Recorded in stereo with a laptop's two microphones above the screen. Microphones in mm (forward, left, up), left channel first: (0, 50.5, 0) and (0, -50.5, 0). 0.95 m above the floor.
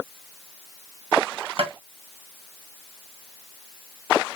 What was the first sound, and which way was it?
Tapping, 65° right (ahead or behind).